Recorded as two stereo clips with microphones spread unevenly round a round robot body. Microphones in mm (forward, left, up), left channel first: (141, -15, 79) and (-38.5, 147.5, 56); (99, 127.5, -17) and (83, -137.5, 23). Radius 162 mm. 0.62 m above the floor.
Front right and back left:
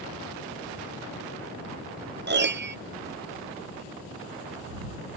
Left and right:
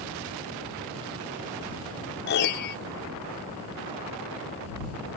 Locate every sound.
2.3 s a piano: 120° left